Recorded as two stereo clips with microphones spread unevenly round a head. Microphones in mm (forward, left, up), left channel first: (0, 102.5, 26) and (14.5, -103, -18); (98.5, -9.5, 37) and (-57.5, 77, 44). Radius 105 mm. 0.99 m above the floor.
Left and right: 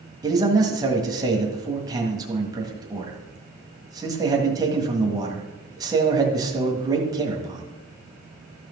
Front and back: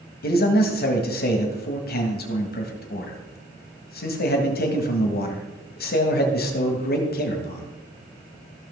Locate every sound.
0.2 s a man speaking: 20° right, 1.7 m